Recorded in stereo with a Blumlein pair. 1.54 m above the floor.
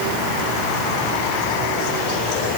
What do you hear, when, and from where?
Only background noise.